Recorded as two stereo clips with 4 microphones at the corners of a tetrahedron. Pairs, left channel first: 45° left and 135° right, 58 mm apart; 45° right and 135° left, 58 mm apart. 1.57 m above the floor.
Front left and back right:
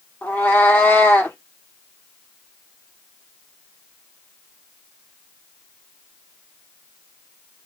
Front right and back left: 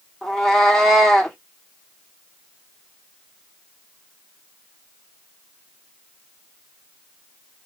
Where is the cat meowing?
25° left, 1.2 m.